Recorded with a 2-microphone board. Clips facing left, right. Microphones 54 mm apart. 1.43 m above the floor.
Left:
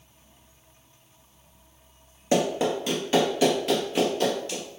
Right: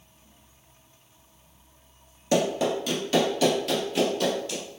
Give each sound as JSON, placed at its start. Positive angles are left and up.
{"t": 2.3, "sound": "running footsteps", "side_deg": 20, "distance_m": 1.5}